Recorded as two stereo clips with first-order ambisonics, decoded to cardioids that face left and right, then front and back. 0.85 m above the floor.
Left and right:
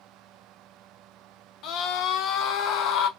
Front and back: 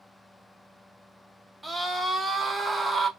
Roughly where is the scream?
Left.